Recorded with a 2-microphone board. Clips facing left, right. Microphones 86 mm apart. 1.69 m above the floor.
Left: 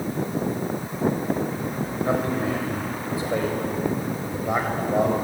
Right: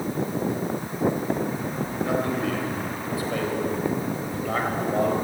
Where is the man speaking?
30° left (ahead or behind), 6.5 m; by 5.1 s 15° left (ahead or behind), 7.5 m.